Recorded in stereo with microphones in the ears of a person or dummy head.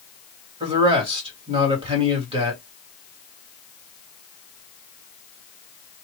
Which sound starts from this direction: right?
A man speaking, at 0.6 s.